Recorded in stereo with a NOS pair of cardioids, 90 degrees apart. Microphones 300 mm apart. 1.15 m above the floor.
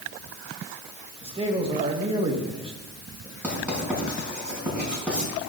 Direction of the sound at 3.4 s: 5° right.